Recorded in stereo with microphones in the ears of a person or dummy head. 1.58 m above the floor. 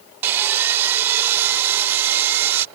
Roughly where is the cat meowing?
No cat meowing in this recording.